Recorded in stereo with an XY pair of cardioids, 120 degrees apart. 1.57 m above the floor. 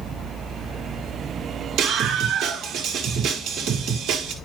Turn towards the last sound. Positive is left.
turn(degrees=-65)